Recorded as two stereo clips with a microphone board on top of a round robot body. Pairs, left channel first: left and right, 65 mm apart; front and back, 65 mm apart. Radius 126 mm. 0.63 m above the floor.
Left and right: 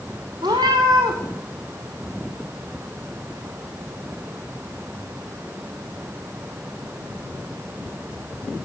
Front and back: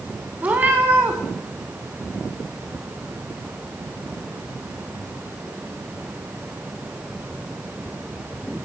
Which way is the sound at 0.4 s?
120° right.